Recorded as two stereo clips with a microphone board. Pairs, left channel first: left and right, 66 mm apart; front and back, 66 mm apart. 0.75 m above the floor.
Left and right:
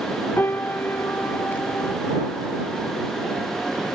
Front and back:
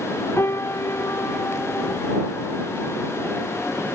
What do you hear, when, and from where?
0.4 s a piano: 40° left